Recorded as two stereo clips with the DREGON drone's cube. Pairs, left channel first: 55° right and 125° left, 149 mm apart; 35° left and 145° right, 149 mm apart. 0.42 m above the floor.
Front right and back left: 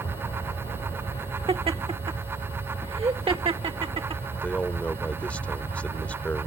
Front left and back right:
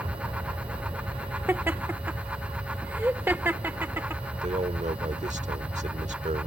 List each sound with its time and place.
0.0 s an aircraft: 105° right
1.5 s laughter: 145° left
4.4 s a man speaking: 135° right